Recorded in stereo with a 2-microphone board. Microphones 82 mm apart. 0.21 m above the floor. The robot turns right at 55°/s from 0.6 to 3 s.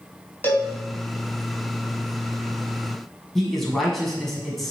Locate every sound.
0.4 s a cowbell: 25° left (ahead or behind), 1.8 m; by 0.7 s 30° left (ahead or behind), 1.8 m
3.4 s a man speaking: 5° left (ahead or behind), 2.0 m